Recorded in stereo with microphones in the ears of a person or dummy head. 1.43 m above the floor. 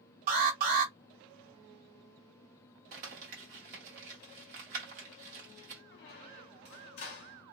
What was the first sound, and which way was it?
An alarm, 50° right (ahead or behind).